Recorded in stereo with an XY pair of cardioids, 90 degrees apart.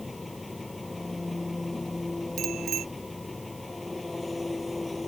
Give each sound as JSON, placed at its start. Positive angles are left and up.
{"t": 0.0, "sound": "an engine running", "azimuth_deg": 20}
{"t": 2.4, "sound": "a bicycle bell", "azimuth_deg": -70}